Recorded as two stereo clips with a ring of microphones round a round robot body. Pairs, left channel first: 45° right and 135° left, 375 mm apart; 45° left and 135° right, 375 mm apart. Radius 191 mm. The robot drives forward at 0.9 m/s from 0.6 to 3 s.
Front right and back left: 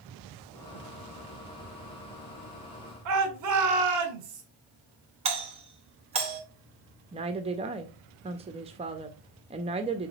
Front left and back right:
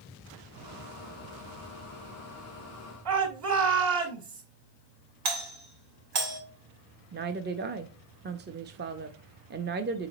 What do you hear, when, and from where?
3.0 s a shout: straight behind, 2 m
5.2 s a doorbell: 150° right, 2.5 m
7.1 s a woman speaking: 165° right, 0.6 m